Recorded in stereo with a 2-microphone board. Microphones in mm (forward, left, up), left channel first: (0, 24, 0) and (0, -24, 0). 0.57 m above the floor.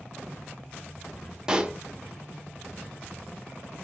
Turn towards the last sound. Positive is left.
turn(degrees=-15)  # may be behind; listen again after turning